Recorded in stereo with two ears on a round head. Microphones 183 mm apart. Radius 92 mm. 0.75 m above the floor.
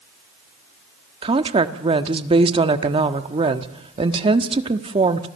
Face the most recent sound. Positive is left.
turn(degrees=-25)  # may be behind; listen again after turning